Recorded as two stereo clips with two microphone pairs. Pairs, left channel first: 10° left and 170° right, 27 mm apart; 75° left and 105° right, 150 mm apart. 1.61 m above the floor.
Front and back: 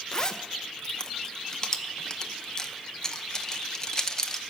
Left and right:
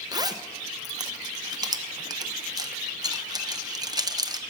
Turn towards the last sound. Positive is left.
turn(degrees=-55)